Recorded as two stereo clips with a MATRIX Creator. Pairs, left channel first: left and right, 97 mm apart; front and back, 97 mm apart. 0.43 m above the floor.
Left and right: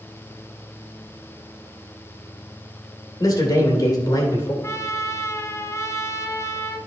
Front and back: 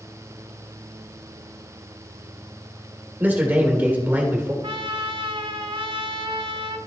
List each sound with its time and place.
3.2 s a man speaking: 115° left, 2 m
4.6 s a trumpet: 150° left, 0.8 m